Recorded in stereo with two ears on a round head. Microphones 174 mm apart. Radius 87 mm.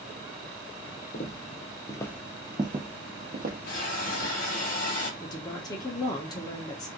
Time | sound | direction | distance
1.1 | footsteps | 45° left (ahead or behind) | 0.8 m
3.7 | a hiss | 40° left (ahead or behind) | 1.1 m
5.2 | a woman speaking | 20° left (ahead or behind) | 0.6 m